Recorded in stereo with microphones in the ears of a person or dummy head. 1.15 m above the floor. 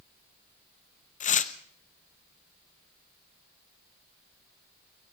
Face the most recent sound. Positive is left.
turn(degrees=40)  # may be behind; listen again after turning